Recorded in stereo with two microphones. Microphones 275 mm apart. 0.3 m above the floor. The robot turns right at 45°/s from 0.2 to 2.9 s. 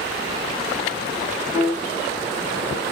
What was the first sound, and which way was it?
A piano, 15° right (ahead or behind).